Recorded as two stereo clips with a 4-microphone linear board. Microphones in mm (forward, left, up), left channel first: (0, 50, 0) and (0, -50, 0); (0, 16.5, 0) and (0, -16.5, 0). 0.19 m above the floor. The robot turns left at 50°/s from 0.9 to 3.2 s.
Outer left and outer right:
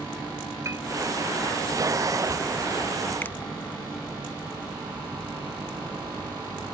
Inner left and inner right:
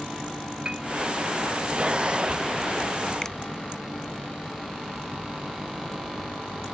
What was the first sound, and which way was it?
A piano, 30° right (ahead or behind).